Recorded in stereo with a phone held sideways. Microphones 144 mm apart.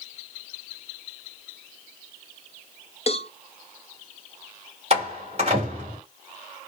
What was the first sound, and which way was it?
A cowbell, 45° left (ahead or behind).